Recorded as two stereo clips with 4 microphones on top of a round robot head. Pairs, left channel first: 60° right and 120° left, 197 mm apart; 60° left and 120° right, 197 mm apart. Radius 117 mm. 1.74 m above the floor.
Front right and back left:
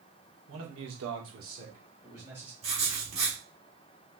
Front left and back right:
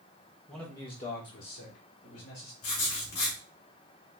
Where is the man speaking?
150° left, 1.3 m; by 2.5 s 40° left, 2 m.